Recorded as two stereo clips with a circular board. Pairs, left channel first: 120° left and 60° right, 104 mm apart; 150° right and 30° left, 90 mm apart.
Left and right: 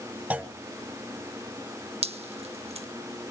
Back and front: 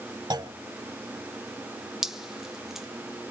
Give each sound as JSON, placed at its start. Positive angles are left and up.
{"t": 0.3, "sound": "a clunk", "azimuth_deg": 10, "distance_m": 0.8}
{"t": 2.0, "sound": "dripping", "azimuth_deg": -55, "distance_m": 0.8}